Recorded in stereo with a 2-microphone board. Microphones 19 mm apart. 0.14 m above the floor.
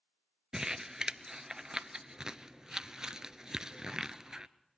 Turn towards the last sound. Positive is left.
turn(degrees=-40)  # may be behind; listen again after turning